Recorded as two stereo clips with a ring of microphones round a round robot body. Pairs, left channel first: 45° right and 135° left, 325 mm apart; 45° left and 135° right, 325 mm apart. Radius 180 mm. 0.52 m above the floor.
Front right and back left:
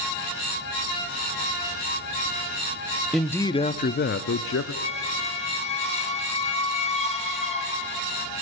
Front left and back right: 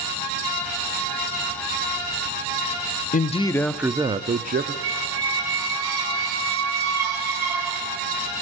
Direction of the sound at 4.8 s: 115° right.